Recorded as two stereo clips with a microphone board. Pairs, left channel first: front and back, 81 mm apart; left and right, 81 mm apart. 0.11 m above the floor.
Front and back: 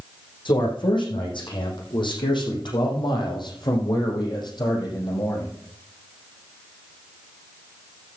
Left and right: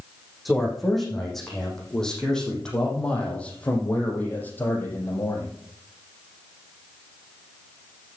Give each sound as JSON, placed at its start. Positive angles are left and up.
{"t": 0.5, "sound": "a man speaking", "azimuth_deg": 0, "distance_m": 6.5}